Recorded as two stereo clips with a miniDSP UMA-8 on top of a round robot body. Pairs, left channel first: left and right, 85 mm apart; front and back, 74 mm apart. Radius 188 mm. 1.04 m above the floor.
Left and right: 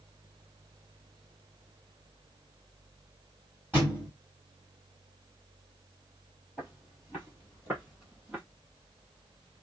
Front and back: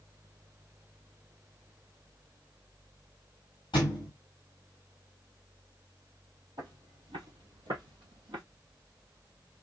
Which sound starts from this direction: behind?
Footsteps, at 6.6 s.